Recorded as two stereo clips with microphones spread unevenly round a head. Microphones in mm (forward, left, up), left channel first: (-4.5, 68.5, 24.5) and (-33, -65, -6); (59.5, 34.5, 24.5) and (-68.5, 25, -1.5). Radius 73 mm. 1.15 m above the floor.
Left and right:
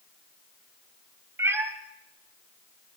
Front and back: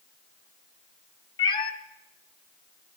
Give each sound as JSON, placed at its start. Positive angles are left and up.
{"t": 1.4, "sound": "a cat meowing", "azimuth_deg": -20, "distance_m": 1.0}